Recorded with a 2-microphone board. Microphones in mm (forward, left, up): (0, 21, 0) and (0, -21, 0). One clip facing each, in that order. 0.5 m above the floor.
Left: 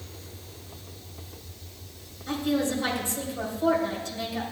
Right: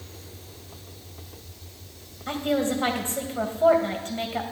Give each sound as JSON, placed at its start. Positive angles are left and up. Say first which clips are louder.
{"t": 2.3, "sound": "a woman speaking", "louder": "right 2 dB", "side_deg": -45, "distance_m": 2.0}